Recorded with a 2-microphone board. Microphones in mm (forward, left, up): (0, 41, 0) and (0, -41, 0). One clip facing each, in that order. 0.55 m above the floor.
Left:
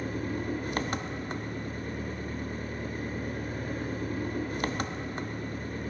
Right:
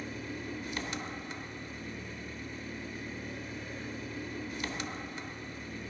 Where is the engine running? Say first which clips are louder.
Left 7 dB; 50° left (ahead or behind), 0.7 m.